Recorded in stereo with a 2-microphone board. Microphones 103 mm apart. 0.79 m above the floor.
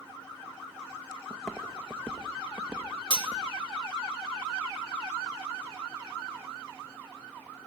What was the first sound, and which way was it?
Footsteps, 5° left (ahead or behind).